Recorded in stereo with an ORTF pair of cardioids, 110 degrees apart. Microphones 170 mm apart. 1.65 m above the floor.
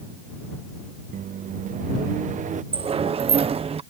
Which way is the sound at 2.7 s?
35° right.